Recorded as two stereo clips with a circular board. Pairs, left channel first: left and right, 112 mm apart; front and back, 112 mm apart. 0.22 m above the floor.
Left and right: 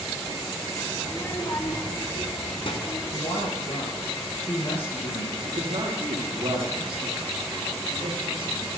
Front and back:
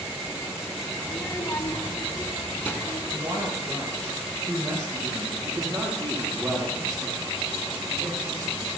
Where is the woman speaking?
120° left, 5 m.